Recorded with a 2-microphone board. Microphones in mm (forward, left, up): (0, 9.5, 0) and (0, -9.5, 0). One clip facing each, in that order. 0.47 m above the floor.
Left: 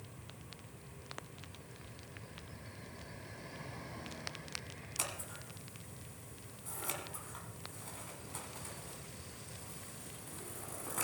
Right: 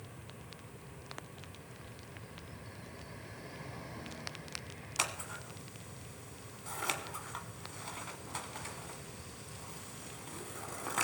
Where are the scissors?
30° right (ahead or behind), 2 m.